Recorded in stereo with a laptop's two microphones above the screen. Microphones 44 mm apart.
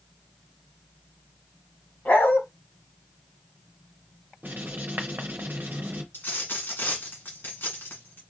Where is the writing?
45° right (ahead or behind), 0.7 m.